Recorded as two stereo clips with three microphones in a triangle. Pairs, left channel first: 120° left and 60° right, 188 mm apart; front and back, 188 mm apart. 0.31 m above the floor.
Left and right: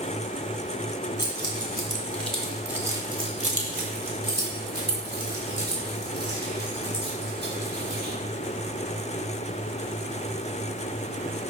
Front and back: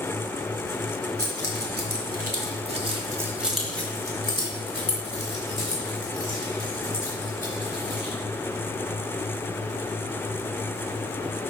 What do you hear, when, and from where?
1.2 s keys jangling: 175° right, 2.0 m; by 8.1 s 35° right, 4 m